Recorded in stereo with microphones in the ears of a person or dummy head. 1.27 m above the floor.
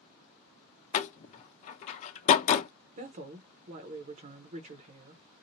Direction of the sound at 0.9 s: 40° left (ahead or behind).